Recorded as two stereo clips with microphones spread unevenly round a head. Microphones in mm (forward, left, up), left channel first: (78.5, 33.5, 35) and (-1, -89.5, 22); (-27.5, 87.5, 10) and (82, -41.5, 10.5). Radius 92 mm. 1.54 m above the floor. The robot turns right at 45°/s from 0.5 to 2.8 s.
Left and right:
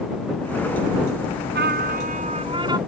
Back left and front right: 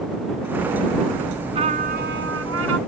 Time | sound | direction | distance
1.6 | a trumpet | 115° right | ?